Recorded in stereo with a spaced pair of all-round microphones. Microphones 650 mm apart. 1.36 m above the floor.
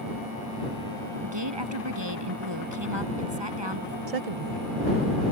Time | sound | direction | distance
1.2 | a woman speaking | 40° right (ahead or behind) | ?
4.1 | a woman speaking | 65° right (ahead or behind) | ?